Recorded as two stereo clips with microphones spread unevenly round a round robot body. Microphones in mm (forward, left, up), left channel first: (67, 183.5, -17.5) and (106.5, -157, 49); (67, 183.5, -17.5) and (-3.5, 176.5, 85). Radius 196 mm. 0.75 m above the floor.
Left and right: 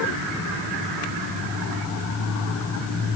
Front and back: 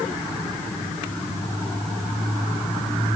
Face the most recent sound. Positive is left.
No sound to turn to.